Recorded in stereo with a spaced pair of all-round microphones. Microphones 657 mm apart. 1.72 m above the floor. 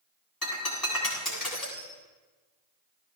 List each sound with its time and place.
0.4 s breaking glass: 30° left (ahead or behind), 7.5 m